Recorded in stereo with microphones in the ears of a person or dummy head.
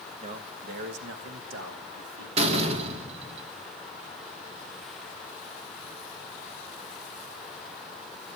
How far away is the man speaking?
About 1.3 m.